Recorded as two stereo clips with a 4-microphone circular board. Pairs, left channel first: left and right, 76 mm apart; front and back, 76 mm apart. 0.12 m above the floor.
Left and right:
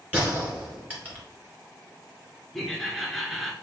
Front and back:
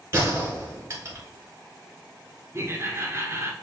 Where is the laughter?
Straight behind, 1.2 m.